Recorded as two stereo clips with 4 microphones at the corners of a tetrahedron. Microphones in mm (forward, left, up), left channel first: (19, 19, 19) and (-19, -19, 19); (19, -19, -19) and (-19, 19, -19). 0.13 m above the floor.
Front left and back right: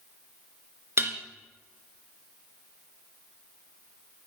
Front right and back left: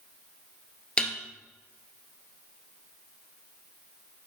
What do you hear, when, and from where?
1.0 s dishes clattering: 115° right, 1.5 m